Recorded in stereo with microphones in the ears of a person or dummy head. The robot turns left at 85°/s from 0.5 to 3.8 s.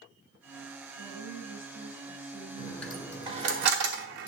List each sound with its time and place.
1.0 s a woman speaking: 150° left, 7 m; by 3.2 s 40° right, 7 m
2.6 s a dropped coin: 30° left (ahead or behind), 1.6 m; by 4.3 s 60° right (ahead or behind), 1.6 m